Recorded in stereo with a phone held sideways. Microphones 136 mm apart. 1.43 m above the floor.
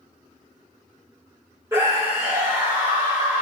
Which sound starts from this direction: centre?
A scream, at 1.7 s.